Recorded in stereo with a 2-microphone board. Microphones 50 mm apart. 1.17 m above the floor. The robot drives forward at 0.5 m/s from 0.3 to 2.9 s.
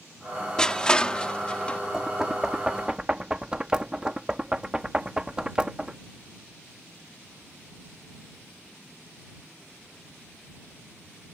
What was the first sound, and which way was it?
Crushing, 15° left (ahead or behind).